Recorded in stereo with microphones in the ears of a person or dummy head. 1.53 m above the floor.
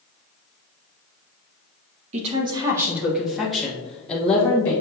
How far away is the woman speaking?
About 1.2 m.